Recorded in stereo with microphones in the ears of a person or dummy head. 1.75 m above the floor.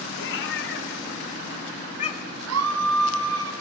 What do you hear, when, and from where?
0.2 s a cat meowing: 65° left (ahead or behind), 2 m; by 2.5 s 40° left (ahead or behind), 2.5 m
2.5 s a scream: 80° right, 2.5 m